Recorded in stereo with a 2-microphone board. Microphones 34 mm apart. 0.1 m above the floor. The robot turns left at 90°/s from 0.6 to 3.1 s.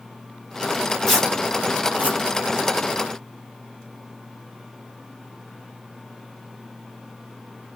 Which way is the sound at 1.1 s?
5° left (ahead or behind).